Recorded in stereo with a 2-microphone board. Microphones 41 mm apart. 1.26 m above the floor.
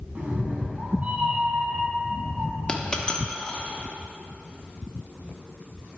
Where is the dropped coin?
20° left (ahead or behind), 0.8 m.